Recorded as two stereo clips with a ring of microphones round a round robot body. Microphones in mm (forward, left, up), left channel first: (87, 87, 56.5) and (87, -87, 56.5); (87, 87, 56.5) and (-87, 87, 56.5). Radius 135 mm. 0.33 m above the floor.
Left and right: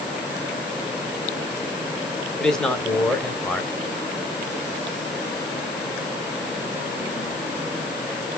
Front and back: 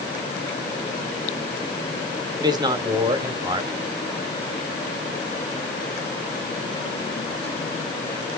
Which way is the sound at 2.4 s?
170° left.